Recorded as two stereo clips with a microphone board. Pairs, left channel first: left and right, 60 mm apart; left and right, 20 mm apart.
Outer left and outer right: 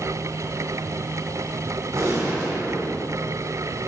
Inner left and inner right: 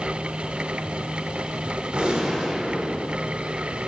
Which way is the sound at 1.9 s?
60° right (ahead or behind).